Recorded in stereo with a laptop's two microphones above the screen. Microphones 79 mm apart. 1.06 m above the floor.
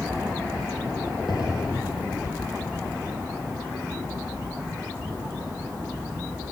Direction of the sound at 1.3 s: 70° left (ahead or behind).